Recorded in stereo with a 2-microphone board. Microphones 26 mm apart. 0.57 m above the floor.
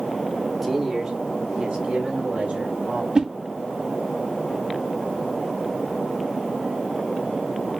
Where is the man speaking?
5° right (ahead or behind), 1.2 m; by 3.0 s 65° right (ahead or behind), 2.5 m.